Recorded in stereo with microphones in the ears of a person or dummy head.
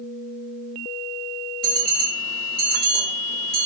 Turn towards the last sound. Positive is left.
turn(degrees=-50)  # may be behind; listen again after turning